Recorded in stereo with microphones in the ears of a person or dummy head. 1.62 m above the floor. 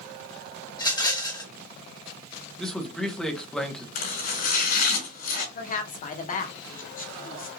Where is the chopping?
50° left (ahead or behind), 3.5 m.